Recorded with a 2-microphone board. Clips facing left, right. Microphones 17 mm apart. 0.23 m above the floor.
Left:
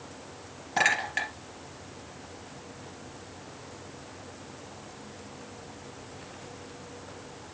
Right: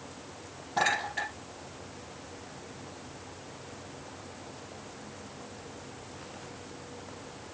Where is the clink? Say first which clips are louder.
Left 3 dB; 75° left (ahead or behind), 3.5 m.